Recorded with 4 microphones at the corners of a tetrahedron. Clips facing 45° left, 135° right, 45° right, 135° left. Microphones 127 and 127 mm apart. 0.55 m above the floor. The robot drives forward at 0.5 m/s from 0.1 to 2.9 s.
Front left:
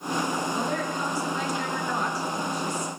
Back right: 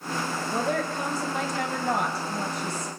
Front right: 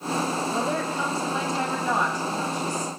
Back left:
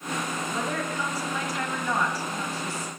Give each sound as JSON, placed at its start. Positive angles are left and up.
{"t": 0.5, "sound": "a woman speaking", "azimuth_deg": -100, "distance_m": 3.5}